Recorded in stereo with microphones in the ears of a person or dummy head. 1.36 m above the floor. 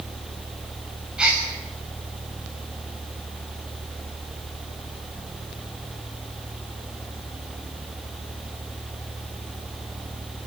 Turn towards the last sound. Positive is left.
turn(degrees=0)  # may be behind; listen again after turning